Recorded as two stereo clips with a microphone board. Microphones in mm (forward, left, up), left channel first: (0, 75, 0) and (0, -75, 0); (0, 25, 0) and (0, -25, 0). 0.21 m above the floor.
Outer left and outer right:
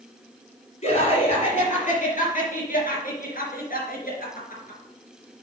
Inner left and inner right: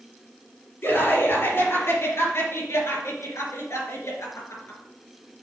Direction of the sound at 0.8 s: 45° left (ahead or behind).